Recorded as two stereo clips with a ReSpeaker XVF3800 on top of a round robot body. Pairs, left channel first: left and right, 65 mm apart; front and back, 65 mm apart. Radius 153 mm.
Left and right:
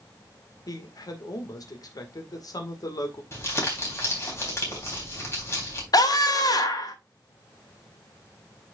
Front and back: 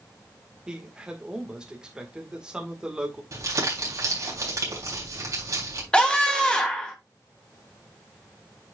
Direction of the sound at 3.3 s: 140° left.